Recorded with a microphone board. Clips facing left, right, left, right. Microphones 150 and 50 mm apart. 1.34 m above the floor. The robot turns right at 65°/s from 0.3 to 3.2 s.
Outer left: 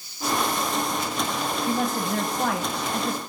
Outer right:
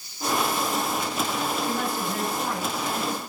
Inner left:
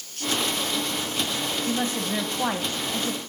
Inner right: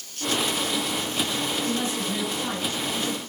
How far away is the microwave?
I don't hear a microwave.